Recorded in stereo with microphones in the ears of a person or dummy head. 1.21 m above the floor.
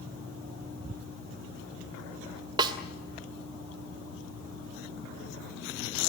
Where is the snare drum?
25° right (ahead or behind), 1.8 m.